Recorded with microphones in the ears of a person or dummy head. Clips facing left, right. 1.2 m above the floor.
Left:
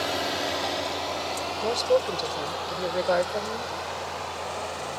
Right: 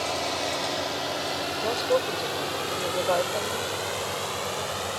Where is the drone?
15° left (ahead or behind); by 5.0 s 60° right (ahead or behind).